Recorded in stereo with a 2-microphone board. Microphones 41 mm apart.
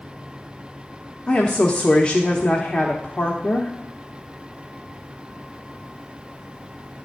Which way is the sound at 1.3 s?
20° left (ahead or behind).